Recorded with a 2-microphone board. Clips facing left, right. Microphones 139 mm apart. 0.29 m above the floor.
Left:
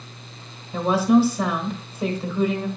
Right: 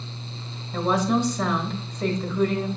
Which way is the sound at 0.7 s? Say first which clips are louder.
Left 5 dB; 5° left (ahead or behind).